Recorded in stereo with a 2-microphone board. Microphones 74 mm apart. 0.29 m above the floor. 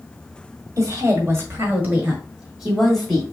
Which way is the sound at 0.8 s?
40° right (ahead or behind).